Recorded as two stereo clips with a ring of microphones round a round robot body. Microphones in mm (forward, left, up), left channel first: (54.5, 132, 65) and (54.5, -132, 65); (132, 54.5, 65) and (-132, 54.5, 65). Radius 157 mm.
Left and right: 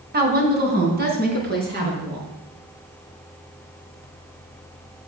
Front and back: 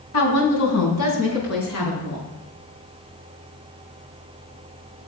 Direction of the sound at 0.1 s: 35° right.